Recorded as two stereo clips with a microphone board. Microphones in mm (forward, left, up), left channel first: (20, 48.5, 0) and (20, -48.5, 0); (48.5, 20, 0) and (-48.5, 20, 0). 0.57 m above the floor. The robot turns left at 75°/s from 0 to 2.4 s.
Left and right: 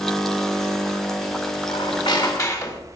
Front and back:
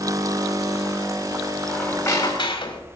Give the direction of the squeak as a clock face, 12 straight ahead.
9 o'clock.